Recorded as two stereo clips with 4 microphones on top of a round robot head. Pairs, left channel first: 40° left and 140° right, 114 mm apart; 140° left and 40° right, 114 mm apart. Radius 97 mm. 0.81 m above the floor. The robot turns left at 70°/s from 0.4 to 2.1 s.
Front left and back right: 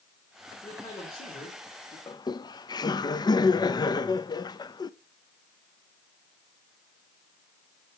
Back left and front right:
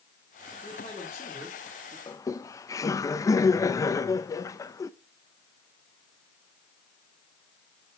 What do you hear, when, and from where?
0.6 s a man speaking: 110° left, 2 m; by 2.0 s 15° left, 2 m
2.1 s laughter: 90° left, 0.5 m; by 4.9 s 85° left, 0.5 m